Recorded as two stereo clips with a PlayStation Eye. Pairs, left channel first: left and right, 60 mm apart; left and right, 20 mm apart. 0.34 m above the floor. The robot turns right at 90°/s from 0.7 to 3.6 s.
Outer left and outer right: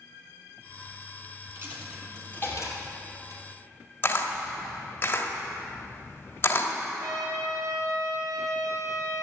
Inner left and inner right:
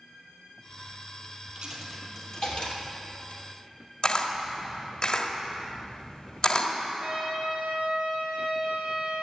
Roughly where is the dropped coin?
Right.